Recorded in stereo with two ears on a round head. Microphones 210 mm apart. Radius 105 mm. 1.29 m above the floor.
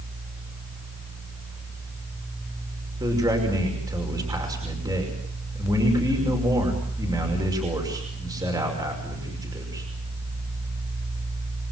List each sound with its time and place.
3.0 s a man speaking: 15° right (ahead or behind), 5.5 m